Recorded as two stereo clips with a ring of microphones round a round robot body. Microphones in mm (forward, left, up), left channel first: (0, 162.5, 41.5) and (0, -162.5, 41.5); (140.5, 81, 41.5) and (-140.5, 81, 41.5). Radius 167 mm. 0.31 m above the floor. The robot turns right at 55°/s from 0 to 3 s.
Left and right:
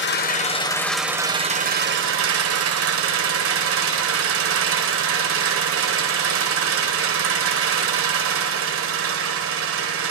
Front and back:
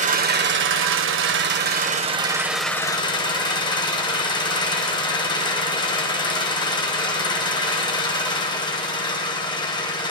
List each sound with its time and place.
0.0 s an engine running: 125° left, 1.4 m; by 10.1 s 70° right, 1.4 m